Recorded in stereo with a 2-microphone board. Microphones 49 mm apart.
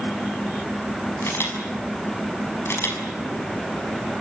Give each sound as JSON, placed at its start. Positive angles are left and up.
{"t": 1.2, "sound": "a camera shutter", "side_deg": 60, "distance_m": 6.0}